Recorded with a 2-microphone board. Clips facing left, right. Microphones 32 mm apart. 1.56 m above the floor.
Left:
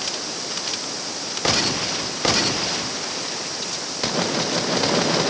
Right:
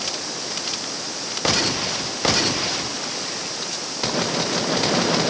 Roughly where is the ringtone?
No ringtone in this recording.